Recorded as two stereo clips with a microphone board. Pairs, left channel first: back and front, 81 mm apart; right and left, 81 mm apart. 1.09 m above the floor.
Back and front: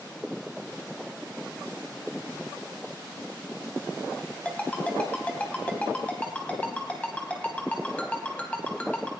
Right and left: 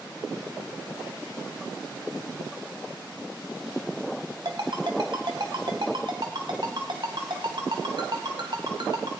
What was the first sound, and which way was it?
A ringtone, 105° left.